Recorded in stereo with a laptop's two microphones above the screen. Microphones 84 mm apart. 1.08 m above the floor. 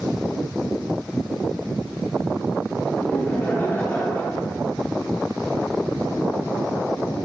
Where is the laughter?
20° left (ahead or behind), 2 m.